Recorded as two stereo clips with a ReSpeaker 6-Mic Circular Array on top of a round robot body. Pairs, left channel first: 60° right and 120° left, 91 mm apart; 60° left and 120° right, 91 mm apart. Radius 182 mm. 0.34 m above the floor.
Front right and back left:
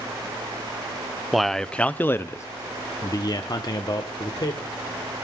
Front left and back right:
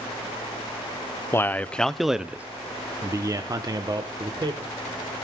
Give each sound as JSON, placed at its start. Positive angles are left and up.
{"t": 1.3, "sound": "a man speaking", "azimuth_deg": 30, "distance_m": 0.9}